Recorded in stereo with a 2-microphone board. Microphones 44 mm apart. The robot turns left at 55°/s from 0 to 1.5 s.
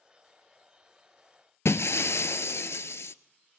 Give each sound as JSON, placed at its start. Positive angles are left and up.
{"t": 1.6, "sound": "breaking glass", "side_deg": 85, "distance_m": 0.5}